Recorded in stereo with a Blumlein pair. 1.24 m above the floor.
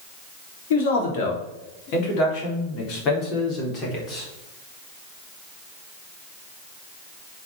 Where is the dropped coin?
I don't hear a dropped coin.